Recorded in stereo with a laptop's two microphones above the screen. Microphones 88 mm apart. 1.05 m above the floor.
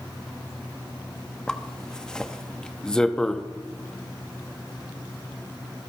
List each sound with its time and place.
1.5 s a zipper: 10° left (ahead or behind), 1.1 m